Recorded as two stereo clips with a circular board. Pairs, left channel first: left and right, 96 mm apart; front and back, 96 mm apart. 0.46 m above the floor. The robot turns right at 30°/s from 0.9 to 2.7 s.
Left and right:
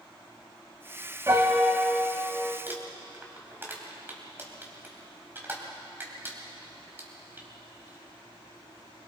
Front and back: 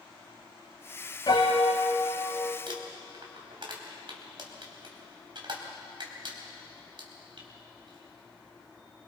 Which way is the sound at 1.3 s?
35° right.